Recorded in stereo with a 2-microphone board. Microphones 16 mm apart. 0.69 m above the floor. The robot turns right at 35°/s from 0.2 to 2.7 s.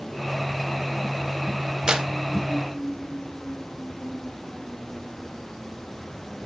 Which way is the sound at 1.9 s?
40° right (ahead or behind).